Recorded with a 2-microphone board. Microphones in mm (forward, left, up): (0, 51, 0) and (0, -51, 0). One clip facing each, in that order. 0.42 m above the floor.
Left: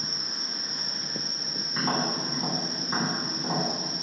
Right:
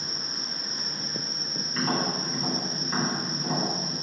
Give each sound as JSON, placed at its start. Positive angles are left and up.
{"t": 0.0, "sound": "an insect", "side_deg": 85, "distance_m": 1.6}
{"t": 1.7, "sound": "tapping", "side_deg": 20, "distance_m": 3.0}